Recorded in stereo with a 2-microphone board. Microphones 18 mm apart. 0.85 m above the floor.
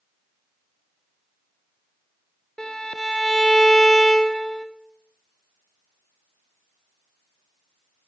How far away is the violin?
About 1.6 m.